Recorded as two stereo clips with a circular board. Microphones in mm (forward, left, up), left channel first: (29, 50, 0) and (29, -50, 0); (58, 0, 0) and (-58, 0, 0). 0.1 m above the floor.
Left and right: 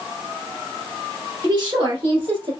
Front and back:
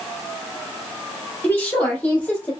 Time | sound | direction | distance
1.4 | a woman speaking | 70° right | 1.9 m